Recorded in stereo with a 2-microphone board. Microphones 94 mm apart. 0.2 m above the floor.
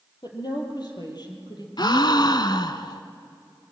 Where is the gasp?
55° left (ahead or behind), 0.9 m.